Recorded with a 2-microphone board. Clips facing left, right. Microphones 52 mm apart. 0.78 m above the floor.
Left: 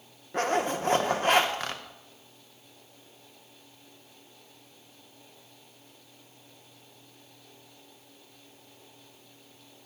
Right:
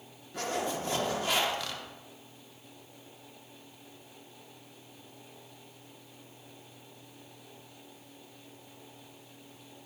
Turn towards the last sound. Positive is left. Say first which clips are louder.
# left 6 dB
turn(degrees=40)  # may be behind; listen again after turning